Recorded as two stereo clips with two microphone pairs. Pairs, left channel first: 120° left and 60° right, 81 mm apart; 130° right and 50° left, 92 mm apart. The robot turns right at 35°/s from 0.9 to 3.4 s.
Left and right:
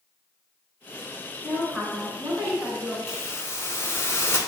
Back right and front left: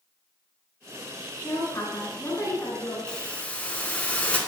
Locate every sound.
1.4 s a woman speaking: 150° right, 1.3 m; by 3.0 s 100° right, 1.3 m
3.1 s a hiss: 155° left, 0.7 m; by 4.4 s 165° left, 0.7 m